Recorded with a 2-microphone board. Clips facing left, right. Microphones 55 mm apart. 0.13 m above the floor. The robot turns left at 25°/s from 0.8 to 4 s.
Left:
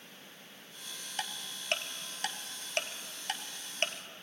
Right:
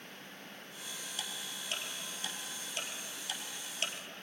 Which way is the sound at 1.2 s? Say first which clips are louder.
Left 5 dB; 55° left (ahead or behind).